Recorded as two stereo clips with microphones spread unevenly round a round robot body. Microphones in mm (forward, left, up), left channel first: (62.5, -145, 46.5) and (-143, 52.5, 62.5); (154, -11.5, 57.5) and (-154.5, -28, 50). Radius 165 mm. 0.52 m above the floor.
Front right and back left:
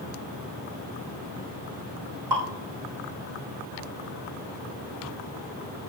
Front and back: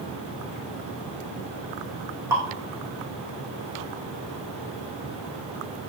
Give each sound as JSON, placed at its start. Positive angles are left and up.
{"t": 2.3, "sound": "dripping", "azimuth_deg": 100, "distance_m": 5.0}